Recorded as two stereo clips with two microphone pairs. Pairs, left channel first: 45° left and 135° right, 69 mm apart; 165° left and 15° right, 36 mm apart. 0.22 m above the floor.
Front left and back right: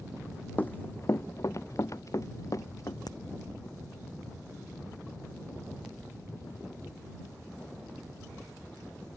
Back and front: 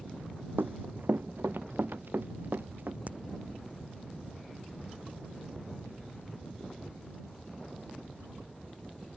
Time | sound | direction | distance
0.6 | running footsteps | 20° right | ?
3.1 | a crack | 30° left | ?